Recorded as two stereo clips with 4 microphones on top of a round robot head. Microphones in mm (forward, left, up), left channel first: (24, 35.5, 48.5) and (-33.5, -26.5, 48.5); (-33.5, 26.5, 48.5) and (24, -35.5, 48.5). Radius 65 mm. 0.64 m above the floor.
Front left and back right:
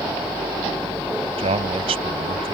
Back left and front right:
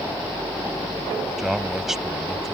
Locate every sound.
1.4 s a man speaking: 130° right